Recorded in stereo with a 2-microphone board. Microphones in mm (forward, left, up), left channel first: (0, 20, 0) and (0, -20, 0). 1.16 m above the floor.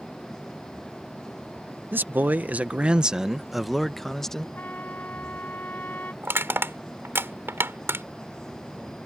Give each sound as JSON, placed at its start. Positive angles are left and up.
{"t": 1.9, "sound": "a man speaking", "side_deg": -60}
{"t": 4.5, "sound": "a trumpet", "side_deg": 50}
{"t": 6.2, "sound": "crushing", "side_deg": -80}